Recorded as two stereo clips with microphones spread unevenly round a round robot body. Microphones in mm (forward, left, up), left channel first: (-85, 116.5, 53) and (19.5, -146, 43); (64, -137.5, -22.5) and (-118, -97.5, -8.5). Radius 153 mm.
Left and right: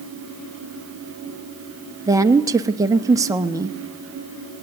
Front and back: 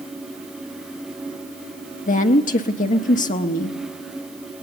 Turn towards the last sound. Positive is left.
turn(degrees=5)